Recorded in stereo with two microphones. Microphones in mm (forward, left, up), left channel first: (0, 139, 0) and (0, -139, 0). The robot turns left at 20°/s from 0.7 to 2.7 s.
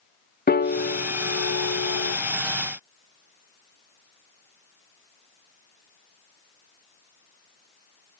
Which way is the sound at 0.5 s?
35° left (ahead or behind).